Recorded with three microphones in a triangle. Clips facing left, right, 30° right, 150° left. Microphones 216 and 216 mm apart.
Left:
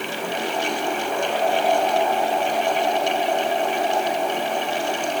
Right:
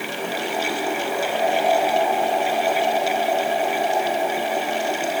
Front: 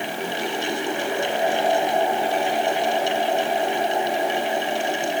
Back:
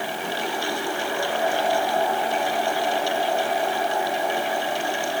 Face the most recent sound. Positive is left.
No sound to turn to.